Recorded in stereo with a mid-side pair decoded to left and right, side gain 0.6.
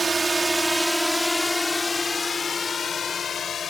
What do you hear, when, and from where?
0.0 s a drone: 20° right; by 3.7 s 40° left